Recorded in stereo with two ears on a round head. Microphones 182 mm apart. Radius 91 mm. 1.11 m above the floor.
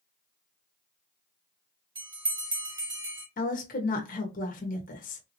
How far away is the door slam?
I don't hear a door slam.